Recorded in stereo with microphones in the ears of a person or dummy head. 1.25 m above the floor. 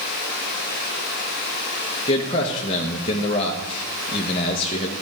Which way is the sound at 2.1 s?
30° left (ahead or behind).